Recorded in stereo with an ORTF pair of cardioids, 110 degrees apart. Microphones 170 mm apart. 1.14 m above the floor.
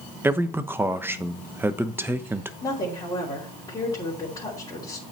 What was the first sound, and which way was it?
A man speaking, 15° right.